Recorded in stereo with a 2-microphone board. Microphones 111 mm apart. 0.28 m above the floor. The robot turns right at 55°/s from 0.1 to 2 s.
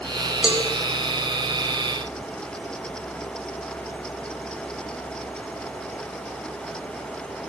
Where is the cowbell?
5° right (ahead or behind), 0.8 m; by 0.6 s 10° right (ahead or behind), 0.8 m.